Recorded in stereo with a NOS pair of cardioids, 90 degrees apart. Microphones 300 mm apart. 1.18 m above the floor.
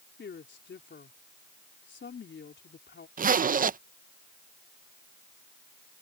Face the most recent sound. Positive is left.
turn(degrees=-30)